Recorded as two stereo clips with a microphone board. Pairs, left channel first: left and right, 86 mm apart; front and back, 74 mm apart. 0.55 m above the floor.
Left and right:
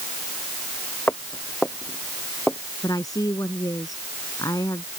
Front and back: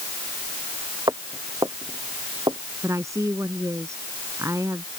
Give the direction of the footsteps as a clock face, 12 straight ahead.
7 o'clock.